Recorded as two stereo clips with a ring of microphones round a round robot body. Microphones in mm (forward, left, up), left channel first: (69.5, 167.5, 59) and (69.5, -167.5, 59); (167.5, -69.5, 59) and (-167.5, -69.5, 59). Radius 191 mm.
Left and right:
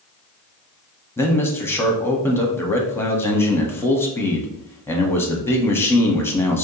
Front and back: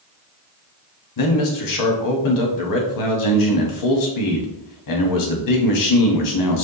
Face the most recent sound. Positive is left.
turn(degrees=5)